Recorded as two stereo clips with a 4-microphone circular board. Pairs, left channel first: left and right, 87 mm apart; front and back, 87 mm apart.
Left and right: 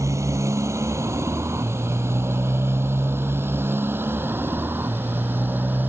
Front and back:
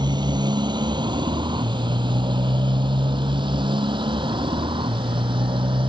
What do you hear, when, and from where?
0.0 s a motorcycle: 145° right; by 5.9 s 160° right